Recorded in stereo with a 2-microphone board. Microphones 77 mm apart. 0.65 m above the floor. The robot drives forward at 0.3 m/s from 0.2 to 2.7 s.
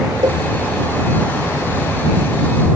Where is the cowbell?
85° right; by 0.4 s 80° right.